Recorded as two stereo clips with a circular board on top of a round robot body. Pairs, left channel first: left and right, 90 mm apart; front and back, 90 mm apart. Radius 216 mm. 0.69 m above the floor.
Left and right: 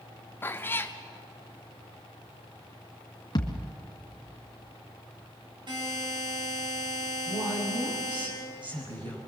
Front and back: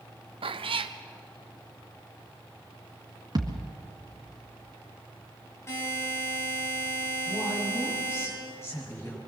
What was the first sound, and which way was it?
A cat meowing, 155° left.